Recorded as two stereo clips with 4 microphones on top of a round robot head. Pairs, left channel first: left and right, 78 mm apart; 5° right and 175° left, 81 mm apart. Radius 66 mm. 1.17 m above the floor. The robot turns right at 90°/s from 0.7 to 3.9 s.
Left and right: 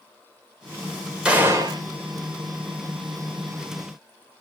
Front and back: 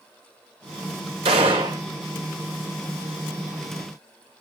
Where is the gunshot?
170° right, 2.0 m; by 1.8 s 120° right, 2.0 m.